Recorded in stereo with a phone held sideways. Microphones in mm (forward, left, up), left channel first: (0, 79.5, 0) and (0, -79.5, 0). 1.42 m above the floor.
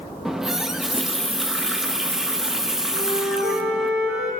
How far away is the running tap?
About 0.7 m.